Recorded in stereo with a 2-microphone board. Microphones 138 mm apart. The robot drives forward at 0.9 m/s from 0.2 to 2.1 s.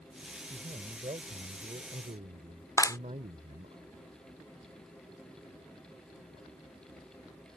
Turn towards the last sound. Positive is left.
turn(degrees=25)  # may be behind; listen again after turning